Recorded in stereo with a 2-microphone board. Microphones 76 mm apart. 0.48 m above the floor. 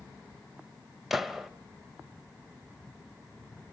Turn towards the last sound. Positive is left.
turn(degrees=-5)  # may be behind; listen again after turning